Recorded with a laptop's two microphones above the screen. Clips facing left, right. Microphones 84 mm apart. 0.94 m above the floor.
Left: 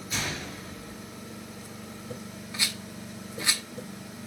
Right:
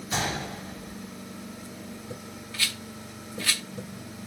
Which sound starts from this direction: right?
A gunshot, at 0.1 s.